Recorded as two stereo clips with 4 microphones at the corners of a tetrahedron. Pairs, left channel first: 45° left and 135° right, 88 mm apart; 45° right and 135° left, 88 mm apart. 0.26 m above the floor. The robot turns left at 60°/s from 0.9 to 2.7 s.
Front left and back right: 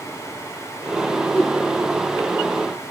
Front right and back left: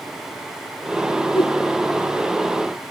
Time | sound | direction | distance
1.4 | a whoosh | 30° right | ?